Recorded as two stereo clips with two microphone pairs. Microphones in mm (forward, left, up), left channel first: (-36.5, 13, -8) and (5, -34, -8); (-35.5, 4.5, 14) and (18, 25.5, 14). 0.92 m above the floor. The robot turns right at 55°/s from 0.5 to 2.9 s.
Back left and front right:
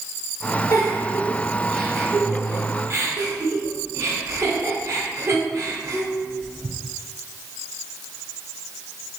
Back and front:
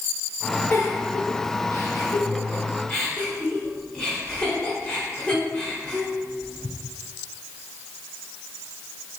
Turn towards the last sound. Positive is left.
turn(degrees=-85)